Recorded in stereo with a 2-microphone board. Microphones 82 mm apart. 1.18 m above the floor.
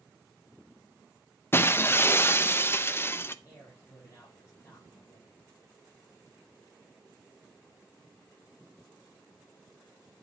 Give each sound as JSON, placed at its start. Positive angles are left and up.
{"t": 1.5, "sound": "breaking glass", "side_deg": 30, "distance_m": 0.5}
{"t": 3.5, "sound": "a man speaking", "side_deg": 40, "distance_m": 5.5}